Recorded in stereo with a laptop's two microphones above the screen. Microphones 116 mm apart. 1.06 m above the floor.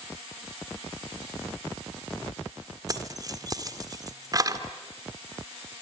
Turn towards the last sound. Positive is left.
turn(degrees=-35)  # may be behind; listen again after turning